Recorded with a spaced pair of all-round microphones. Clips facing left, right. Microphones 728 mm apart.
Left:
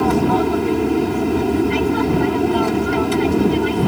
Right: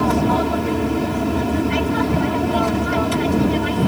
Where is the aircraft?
10° right (ahead or behind).